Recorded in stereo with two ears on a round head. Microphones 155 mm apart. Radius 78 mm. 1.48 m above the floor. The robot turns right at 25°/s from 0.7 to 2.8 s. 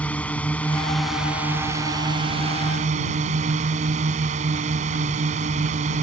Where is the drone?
170° left; by 6.0 s 135° right.